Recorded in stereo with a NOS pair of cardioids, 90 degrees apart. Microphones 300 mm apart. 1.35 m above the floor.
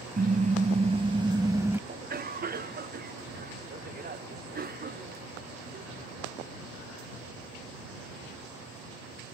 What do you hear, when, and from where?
0.2 s a car horn: 30° right; by 1.8 s 10° right
1.9 s a cough: 30° right